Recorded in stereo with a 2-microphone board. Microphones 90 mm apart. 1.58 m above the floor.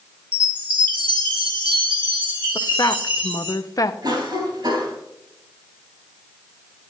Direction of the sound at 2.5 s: 45° left (ahead or behind).